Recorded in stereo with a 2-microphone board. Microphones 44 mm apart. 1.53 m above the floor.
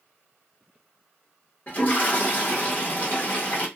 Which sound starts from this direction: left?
A toilet flushing, at 1.7 s.